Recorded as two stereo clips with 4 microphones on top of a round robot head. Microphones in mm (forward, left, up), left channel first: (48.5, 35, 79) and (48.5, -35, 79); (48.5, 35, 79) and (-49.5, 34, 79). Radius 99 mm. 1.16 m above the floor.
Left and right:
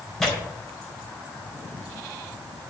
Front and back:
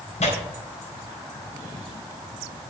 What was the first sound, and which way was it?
Tearing paper, straight ahead.